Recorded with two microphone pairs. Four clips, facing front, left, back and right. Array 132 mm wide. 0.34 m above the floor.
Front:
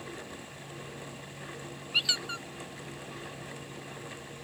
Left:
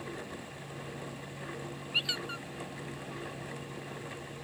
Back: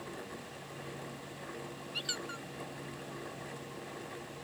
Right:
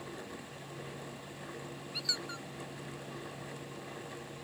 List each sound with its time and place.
1.9 s a squeak: 20° left